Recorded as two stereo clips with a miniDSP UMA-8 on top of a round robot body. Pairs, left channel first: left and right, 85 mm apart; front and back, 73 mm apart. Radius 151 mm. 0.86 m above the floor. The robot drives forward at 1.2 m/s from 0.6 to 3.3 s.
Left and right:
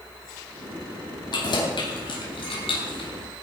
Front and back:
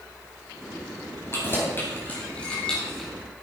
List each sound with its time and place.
1.3 s keys jangling: 55° left, 4 m; by 3.1 s 85° left, 3.5 m